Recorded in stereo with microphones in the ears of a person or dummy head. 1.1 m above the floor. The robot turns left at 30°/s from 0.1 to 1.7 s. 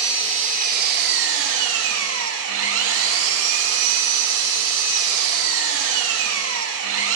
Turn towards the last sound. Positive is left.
turn(degrees=-80)